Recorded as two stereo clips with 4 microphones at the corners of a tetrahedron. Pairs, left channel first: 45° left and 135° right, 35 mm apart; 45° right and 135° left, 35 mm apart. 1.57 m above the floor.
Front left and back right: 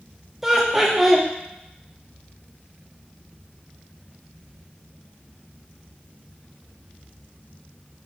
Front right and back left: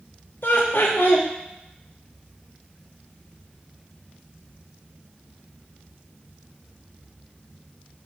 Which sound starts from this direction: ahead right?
Laughter, at 0.4 s.